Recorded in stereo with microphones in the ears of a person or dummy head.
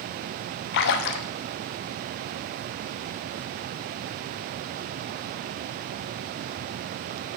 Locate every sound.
0.7 s a splash: 60° left (ahead or behind), 0.6 m